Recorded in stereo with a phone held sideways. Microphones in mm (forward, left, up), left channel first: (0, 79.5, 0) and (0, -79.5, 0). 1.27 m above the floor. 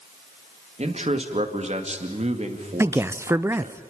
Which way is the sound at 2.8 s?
15° right (ahead or behind).